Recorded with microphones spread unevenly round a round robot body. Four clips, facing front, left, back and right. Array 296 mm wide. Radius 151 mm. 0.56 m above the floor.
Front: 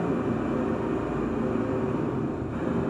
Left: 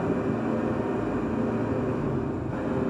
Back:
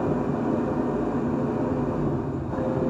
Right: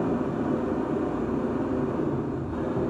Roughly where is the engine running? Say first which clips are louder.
Even, back 2 dB; behind left.